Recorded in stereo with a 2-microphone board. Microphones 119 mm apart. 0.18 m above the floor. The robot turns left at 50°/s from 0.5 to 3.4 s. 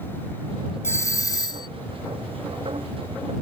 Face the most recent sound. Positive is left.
turn(degrees=15)